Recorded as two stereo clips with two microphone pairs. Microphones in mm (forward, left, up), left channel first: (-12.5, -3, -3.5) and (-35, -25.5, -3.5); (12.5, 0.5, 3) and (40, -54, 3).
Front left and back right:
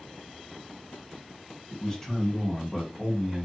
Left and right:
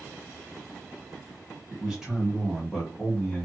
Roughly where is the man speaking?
Ahead.